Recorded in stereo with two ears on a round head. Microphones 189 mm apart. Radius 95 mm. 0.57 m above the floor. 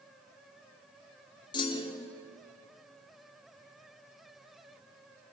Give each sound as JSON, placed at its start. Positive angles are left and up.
{"t": 1.5, "sound": "a clunk", "side_deg": 25, "distance_m": 1.8}